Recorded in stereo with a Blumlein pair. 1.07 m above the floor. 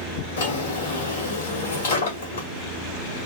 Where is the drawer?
60° left, 2 m.